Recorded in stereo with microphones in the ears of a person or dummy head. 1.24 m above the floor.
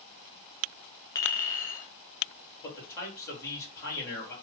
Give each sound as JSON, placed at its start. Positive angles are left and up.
{"t": 1.1, "sound": "a clink", "side_deg": 15, "distance_m": 1.1}
{"t": 2.6, "sound": "a man speaking", "side_deg": 15, "distance_m": 2.5}